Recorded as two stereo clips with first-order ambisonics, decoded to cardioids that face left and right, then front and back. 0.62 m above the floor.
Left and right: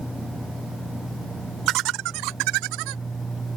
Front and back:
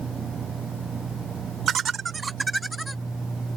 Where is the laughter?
125° right; by 3.0 s 90° right.